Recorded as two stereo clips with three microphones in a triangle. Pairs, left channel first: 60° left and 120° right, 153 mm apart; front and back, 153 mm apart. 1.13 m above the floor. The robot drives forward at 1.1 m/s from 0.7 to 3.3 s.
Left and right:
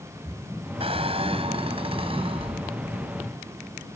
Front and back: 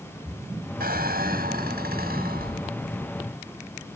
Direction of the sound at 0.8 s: 170° right.